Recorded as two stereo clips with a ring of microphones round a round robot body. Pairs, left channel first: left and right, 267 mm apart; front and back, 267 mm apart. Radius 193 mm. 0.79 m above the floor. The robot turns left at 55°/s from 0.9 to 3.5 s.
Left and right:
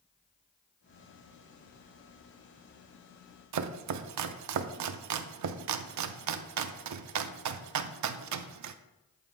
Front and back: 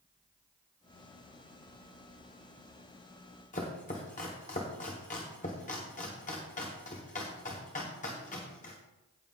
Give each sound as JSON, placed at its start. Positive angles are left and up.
{"t": 3.5, "sound": "chopping", "azimuth_deg": -70, "distance_m": 0.6}